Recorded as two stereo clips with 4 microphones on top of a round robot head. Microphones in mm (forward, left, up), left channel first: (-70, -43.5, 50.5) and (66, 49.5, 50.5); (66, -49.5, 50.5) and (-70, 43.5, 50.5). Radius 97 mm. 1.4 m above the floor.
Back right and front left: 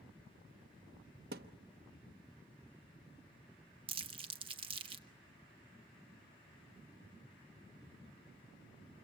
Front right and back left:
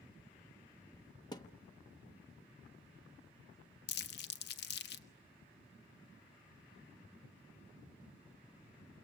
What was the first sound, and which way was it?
A thud, 25° left.